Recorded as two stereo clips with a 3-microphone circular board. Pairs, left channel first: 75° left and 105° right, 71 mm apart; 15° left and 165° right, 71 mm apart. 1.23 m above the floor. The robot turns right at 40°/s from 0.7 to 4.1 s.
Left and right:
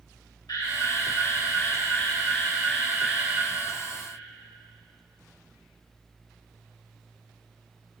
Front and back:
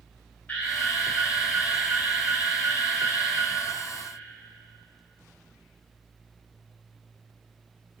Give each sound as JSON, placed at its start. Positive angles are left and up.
{"t": 0.5, "sound": "an alarm", "azimuth_deg": 80, "distance_m": 3.5}